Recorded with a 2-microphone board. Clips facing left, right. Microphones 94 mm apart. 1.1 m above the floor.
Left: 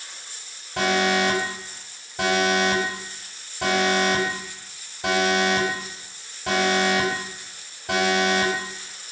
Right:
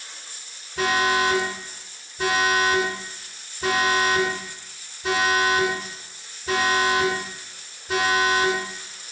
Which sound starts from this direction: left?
An alarm, at 0.8 s.